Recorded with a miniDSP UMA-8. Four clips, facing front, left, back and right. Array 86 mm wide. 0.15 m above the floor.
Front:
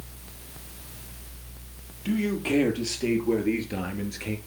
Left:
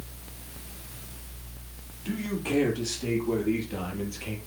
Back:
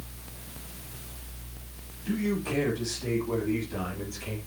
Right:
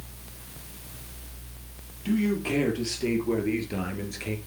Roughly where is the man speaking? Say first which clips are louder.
Right 5 dB, front 3 dB; ahead right.